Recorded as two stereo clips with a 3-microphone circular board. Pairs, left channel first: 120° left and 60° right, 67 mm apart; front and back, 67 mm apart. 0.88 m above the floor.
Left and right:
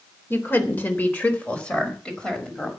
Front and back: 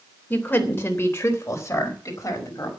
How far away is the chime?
No chime in this recording.